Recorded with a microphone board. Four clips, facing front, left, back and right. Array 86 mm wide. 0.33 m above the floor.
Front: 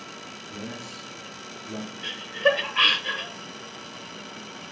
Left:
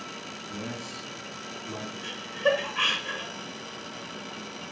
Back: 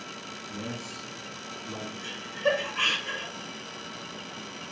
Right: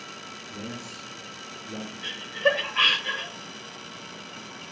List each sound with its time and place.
0.5 s a man speaking: 120° left, 2.5 m
2.0 s laughter: 25° right, 0.9 m